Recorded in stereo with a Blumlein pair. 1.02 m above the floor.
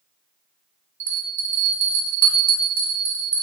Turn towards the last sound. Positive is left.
turn(degrees=-65)